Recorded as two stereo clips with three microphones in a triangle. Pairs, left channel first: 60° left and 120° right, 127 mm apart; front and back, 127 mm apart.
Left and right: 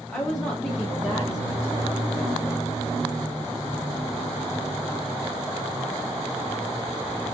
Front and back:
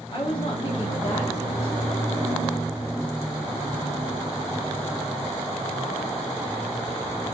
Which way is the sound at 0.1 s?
15° right.